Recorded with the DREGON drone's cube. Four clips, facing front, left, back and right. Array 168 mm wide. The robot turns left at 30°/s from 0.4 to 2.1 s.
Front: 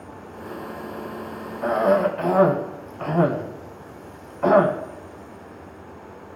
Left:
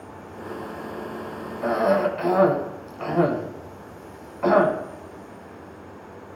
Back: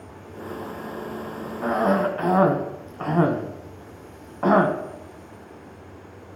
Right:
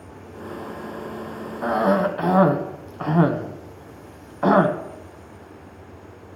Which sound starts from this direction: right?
A cough, at 1.6 s.